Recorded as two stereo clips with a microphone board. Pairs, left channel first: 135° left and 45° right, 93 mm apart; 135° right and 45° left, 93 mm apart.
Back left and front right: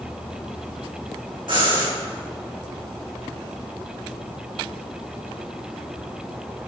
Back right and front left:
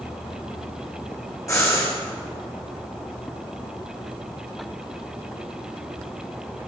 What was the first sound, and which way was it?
Breathing, 80° right.